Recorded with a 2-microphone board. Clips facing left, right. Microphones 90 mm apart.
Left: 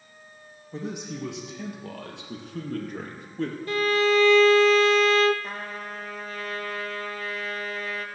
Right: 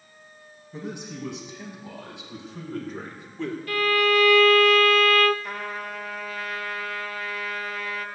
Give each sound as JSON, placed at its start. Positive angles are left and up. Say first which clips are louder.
{"t": 0.7, "sound": "a man speaking", "louder": "left 2 dB", "side_deg": 75, "distance_m": 6.0}
{"t": 3.7, "sound": "a violin", "louder": "even", "side_deg": 25, "distance_m": 0.5}
{"t": 5.4, "sound": "a trumpet", "louder": "right 2 dB", "side_deg": 35, "distance_m": 1.3}